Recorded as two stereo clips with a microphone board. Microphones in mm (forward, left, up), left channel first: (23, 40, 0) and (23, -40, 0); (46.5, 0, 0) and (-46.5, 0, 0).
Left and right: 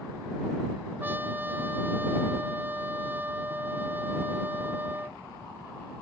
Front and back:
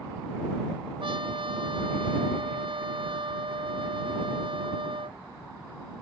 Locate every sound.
1.0 s a trumpet: 155° right